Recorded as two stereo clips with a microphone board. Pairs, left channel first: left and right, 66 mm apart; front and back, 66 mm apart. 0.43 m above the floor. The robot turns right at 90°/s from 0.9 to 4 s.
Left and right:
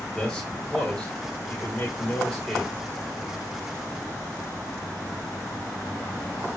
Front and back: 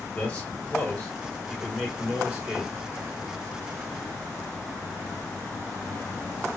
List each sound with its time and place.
0.1 s a man speaking: 25° left, 1.1 m; by 2.8 s 165° right, 1.1 m